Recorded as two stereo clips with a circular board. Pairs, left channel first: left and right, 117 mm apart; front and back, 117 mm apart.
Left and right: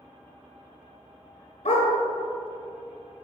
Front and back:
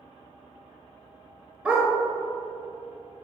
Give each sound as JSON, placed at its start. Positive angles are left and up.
{"t": 1.6, "sound": "a dog barking", "azimuth_deg": 100, "distance_m": 1.5}